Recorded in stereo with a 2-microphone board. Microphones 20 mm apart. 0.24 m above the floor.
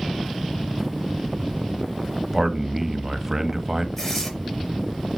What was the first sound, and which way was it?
A man speaking, 20° right (ahead or behind).